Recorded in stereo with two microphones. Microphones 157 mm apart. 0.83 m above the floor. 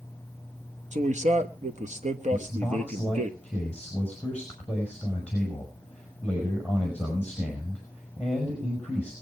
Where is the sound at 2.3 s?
10° left (ahead or behind), 5.5 m.